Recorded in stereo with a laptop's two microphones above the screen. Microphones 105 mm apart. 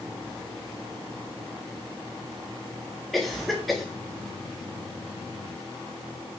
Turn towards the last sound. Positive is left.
turn(degrees=0)  # may be behind; listen again after turning